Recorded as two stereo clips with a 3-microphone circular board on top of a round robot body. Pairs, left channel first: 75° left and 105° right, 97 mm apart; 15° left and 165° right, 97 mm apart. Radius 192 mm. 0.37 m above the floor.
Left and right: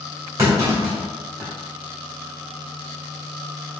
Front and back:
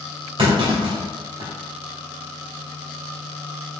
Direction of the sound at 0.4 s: 165° right.